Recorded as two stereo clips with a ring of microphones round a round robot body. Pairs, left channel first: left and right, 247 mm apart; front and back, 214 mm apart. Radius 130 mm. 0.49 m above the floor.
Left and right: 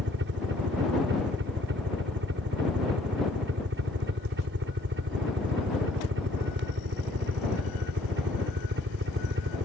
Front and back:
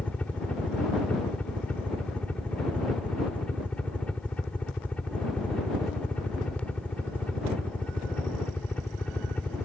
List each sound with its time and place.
0.0 s a helicopter: 85° right